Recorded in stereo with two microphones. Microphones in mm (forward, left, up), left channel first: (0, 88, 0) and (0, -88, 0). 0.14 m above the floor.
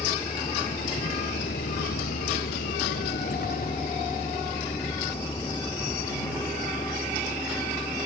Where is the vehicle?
35° left (ahead or behind); by 8.1 s 15° left (ahead or behind).